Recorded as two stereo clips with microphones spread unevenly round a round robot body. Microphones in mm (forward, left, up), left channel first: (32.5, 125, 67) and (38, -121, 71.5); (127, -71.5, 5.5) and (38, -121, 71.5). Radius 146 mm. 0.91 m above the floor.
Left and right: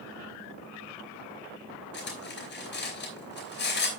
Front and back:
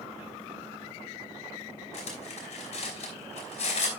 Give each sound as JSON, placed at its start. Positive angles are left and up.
{"t": 1.9, "sound": "cutlery clinking", "azimuth_deg": 45, "distance_m": 4.5}